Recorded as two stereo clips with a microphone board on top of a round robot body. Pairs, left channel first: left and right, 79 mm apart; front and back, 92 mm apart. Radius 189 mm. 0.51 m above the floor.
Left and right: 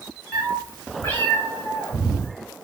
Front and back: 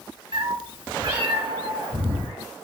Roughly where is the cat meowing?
Behind.